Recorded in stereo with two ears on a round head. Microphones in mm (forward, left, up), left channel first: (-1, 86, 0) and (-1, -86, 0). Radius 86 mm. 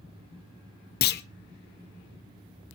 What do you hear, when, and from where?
1.0 s a clunk: 55° left (ahead or behind), 0.6 m